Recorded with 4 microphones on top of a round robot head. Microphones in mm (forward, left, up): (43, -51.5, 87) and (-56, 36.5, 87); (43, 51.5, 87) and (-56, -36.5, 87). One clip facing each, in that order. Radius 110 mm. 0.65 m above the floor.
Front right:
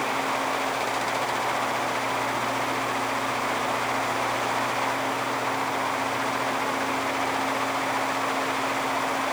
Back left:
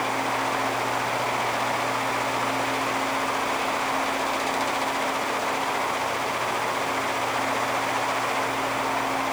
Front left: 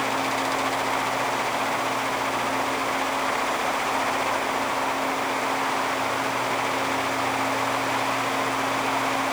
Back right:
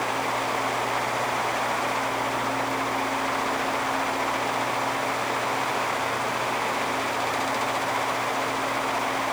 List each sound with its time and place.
Only background noise.